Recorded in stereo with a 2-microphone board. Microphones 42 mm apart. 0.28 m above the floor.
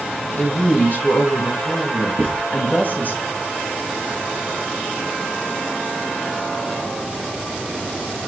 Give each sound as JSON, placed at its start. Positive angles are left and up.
{"t": 0.4, "sound": "a woman speaking", "side_deg": 50, "distance_m": 1.8}
{"t": 2.2, "sound": "writing", "side_deg": 35, "distance_m": 4.0}